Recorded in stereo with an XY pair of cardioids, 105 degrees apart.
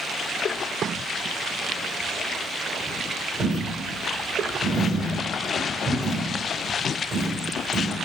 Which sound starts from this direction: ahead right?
A dropped coin, at 3.4 s.